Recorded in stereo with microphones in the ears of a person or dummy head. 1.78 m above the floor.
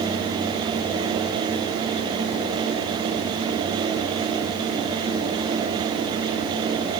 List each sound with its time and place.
Only background noise.